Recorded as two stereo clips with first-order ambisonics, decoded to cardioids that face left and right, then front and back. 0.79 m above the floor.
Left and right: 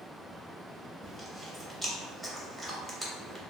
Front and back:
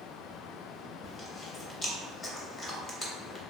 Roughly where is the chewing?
Ahead.